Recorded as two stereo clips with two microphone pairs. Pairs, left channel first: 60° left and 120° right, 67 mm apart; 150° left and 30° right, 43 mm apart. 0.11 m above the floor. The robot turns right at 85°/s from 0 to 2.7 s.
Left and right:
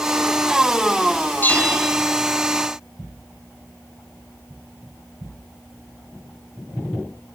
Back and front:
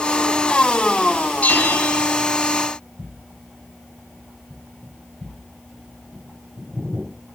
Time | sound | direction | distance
1.4 | a bell | 110° left | 2.5 m